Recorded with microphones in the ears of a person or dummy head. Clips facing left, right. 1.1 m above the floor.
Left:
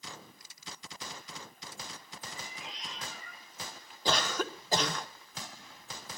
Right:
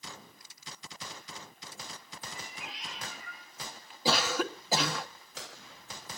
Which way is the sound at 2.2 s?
10° right (ahead or behind).